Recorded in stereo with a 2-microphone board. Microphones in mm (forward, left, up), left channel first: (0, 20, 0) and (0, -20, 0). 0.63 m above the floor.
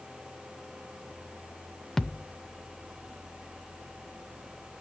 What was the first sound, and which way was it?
A thud, 10° left (ahead or behind).